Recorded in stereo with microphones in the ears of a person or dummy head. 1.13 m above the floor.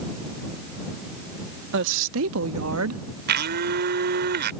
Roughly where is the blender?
Right.